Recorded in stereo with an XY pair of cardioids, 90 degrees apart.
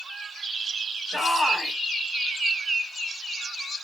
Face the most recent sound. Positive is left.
turn(degrees=15)